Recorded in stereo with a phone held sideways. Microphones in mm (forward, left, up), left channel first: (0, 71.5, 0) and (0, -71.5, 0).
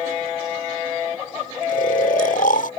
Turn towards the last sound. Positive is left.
turn(degrees=75)  # may be behind; listen again after turning